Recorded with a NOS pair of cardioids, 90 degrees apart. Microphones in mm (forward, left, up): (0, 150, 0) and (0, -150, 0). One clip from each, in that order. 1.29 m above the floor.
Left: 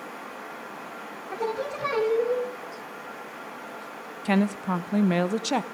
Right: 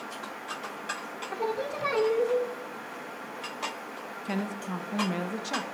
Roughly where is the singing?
Ahead.